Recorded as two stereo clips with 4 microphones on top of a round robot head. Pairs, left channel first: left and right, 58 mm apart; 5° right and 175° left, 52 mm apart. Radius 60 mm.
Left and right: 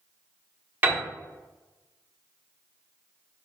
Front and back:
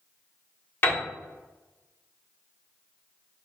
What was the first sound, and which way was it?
A piano, 40° right.